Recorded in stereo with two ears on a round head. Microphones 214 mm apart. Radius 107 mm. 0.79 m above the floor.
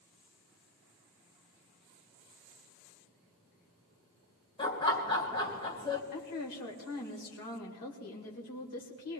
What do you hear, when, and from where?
4.6 s laughter: 20° left (ahead or behind), 3 m
6.1 s a woman speaking: 75° left (ahead or behind), 3 m